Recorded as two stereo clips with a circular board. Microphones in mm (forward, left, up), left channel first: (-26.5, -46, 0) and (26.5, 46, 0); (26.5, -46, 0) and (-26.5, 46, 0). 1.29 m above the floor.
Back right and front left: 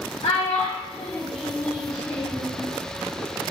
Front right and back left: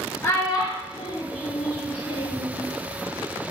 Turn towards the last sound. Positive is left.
turn(degrees=-50)